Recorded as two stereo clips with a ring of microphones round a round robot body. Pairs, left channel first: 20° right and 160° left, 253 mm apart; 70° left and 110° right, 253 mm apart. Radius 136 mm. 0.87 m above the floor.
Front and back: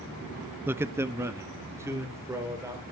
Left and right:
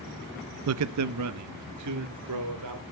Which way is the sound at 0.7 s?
120° right.